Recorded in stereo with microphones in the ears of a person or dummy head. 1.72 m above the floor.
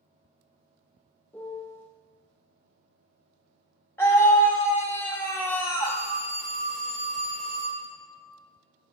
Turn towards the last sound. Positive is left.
turn(degrees=40)  # may be behind; listen again after turning